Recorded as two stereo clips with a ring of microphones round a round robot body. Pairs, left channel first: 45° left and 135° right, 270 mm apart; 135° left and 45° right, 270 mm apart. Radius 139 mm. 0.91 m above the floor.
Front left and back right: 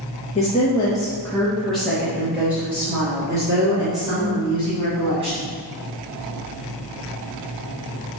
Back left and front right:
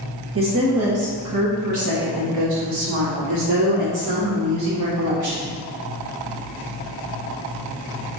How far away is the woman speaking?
About 1.3 m.